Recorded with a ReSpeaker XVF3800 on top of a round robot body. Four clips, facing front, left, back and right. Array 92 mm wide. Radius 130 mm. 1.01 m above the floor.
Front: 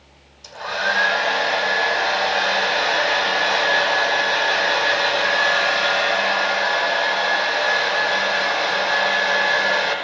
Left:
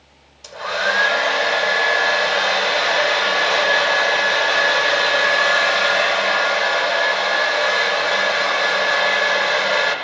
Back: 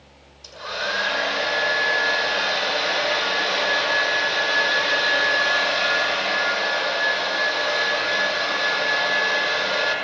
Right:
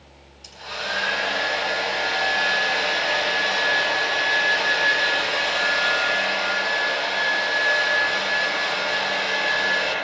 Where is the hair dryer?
90° left, 6.5 m.